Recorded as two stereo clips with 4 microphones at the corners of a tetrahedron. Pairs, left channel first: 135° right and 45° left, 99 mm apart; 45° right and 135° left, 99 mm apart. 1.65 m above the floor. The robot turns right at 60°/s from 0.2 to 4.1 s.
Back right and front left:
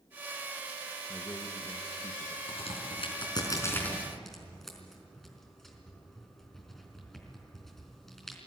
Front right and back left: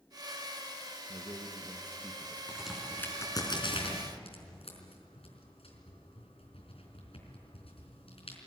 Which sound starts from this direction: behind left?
A man speaking, at 1.1 s.